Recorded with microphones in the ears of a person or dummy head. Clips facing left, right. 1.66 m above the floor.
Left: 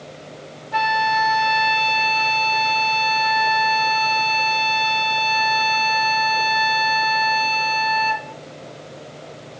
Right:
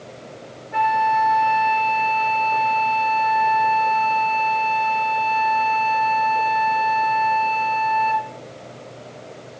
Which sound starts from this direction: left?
A flute, at 0.7 s.